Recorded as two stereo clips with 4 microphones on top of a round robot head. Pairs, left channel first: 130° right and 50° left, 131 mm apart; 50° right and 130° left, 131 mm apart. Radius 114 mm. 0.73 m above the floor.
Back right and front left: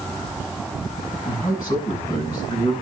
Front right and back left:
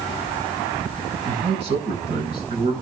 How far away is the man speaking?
About 6.5 m.